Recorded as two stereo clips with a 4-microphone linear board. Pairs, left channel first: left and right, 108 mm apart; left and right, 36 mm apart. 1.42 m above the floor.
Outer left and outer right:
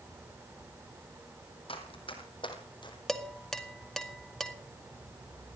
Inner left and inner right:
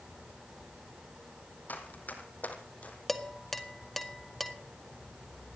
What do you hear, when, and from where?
1.7 s running footsteps: 55° left (ahead or behind), 3 m; by 3.0 s 45° left (ahead or behind), 3 m
3.1 s dishes clattering: 5° left (ahead or behind), 1.5 m